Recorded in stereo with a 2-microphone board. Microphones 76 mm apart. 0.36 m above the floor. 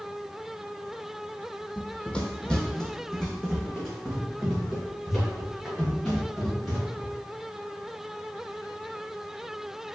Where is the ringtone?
No ringtone in this recording.